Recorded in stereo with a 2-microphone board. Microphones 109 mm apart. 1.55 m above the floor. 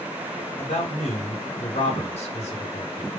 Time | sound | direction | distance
0.6 | a man speaking | 85° left | 1.5 m